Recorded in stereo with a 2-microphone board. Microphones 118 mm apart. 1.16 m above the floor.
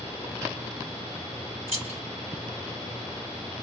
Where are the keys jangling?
60° right (ahead or behind), 1.3 m.